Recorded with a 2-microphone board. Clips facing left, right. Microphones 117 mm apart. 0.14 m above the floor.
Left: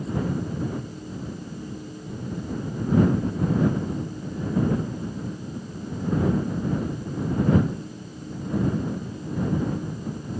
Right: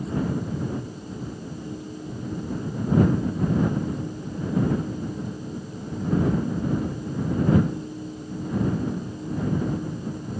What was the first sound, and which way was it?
Only background noise.